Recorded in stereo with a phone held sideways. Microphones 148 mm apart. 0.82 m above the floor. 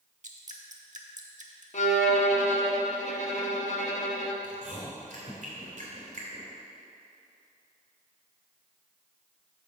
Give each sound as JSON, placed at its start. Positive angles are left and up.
{"t": 0.2, "sound": "dripping", "side_deg": -60, "distance_m": 0.8}
{"t": 1.7, "sound": "a violin", "side_deg": 60, "distance_m": 0.8}
{"t": 4.4, "sound": "chewing", "side_deg": -65, "distance_m": 2.0}